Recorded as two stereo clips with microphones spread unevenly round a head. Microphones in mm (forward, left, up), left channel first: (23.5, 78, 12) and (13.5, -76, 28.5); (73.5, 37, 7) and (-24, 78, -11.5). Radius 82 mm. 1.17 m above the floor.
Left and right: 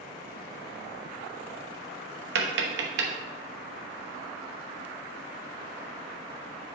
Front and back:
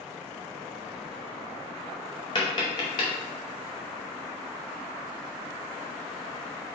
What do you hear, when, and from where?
2.4 s tapping: 85° right, 1.0 m